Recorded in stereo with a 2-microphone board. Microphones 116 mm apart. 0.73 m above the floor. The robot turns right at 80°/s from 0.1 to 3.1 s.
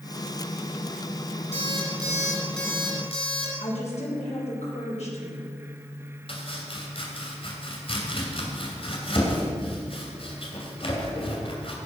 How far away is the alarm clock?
About 4.5 m.